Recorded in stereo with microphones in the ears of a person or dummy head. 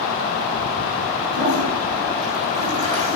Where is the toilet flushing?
35° right (ahead or behind), 5.5 m.